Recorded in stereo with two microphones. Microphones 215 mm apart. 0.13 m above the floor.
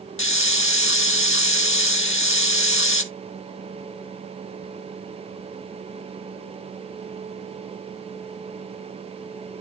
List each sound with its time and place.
0.2 s a hiss: 70° left (ahead or behind), 0.7 m